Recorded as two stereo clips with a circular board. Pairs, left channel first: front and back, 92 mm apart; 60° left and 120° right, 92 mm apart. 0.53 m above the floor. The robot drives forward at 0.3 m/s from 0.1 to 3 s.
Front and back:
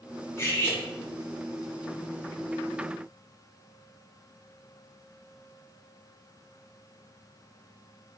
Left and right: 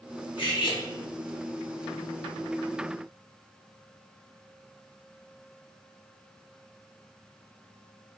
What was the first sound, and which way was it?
Cutlery clinking, 55° left.